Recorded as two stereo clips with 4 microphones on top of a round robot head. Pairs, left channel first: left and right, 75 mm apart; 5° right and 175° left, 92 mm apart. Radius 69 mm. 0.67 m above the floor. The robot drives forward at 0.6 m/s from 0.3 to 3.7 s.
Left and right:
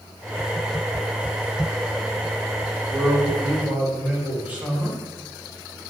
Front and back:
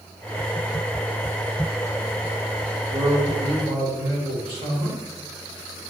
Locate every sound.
2.9 s a man speaking: 155° right, 1.6 m; by 5.0 s 160° right, 2.0 m